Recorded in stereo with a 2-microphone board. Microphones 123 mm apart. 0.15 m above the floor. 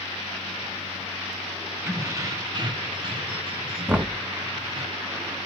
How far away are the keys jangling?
About 0.9 m.